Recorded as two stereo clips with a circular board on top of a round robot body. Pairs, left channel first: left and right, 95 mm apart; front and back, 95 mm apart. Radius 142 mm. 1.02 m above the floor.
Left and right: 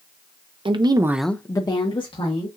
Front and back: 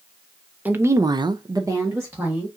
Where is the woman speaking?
110° right, 0.9 m; by 2.5 s 110° left, 1.8 m.